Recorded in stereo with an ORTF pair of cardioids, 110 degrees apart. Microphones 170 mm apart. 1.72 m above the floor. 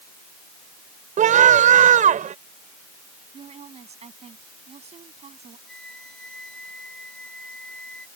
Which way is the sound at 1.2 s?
50° right.